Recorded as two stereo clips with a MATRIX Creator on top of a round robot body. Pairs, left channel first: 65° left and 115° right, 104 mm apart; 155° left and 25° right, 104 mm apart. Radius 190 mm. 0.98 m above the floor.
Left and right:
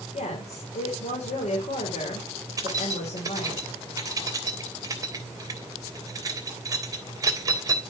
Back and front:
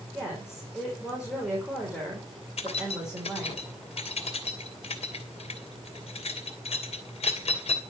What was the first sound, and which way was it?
A woman speaking, 60° left.